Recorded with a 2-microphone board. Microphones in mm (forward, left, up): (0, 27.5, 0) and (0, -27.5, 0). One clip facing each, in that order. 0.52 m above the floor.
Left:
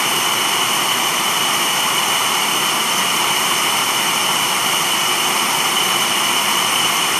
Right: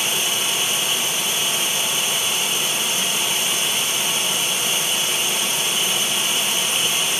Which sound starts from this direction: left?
Running water, at 0.0 s.